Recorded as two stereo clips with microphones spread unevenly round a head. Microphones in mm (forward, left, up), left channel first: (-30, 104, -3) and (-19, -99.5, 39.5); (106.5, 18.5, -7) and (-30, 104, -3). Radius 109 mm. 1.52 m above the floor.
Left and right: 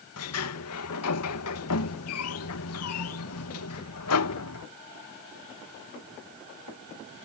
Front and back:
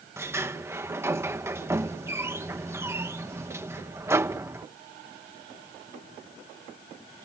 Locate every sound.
0.2 s a sliding door: 75° left